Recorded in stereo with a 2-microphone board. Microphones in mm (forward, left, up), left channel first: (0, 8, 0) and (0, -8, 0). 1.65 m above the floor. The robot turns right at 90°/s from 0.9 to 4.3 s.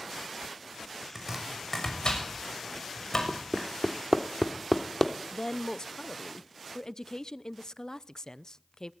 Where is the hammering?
45° right (ahead or behind), 1.7 m; by 5.1 s 20° left (ahead or behind), 1.7 m.